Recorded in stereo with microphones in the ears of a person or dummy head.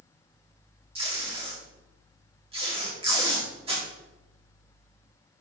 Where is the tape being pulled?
30° right (ahead or behind), 2 m.